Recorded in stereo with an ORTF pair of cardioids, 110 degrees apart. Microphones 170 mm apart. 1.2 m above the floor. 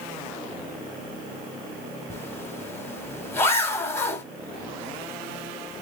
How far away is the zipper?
About 3 m.